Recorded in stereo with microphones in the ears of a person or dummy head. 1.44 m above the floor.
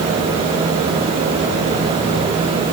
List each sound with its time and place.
Only background noise.